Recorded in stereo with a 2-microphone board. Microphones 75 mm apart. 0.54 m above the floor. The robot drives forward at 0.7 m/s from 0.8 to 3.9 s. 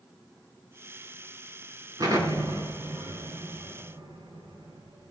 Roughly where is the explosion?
Right.